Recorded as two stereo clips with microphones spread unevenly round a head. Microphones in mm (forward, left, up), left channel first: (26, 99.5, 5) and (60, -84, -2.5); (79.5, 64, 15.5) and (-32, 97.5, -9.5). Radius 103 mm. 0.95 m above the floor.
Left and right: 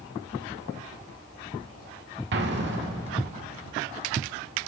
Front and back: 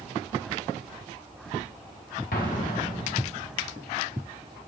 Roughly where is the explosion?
Ahead right.